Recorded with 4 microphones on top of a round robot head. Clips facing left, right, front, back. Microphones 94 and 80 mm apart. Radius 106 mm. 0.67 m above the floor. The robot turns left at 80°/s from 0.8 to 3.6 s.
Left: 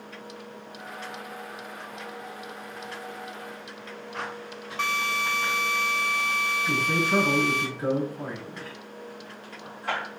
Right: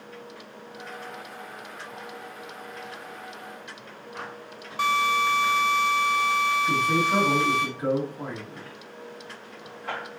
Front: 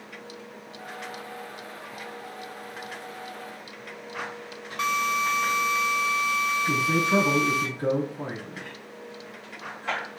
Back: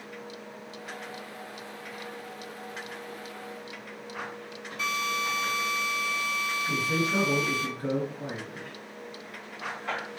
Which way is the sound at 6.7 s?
5° left.